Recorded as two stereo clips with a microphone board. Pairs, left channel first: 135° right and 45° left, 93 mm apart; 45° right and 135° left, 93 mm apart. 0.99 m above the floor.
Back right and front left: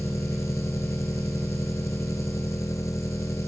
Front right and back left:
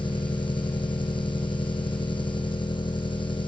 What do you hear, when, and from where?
0.0 s an engine running: 80° right